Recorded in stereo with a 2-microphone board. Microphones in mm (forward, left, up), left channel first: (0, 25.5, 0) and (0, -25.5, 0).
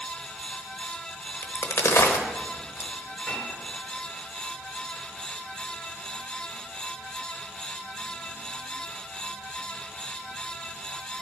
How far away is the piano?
About 4.5 m.